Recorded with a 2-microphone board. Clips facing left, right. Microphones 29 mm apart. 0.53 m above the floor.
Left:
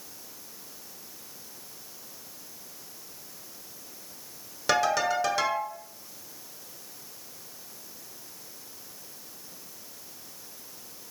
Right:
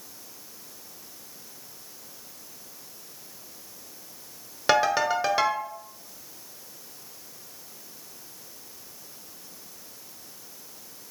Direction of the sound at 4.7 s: 20° right (ahead or behind).